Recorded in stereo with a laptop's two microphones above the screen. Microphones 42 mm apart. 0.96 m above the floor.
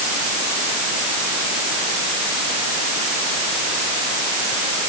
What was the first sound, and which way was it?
Only background noise.